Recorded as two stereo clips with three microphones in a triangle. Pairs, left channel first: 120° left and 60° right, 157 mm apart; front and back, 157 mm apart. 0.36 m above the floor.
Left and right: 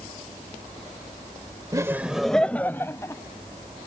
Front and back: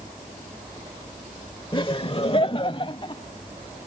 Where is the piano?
I don't hear a piano.